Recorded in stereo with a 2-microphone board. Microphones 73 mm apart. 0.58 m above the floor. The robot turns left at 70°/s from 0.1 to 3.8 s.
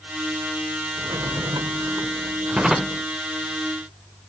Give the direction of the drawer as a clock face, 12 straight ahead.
2 o'clock.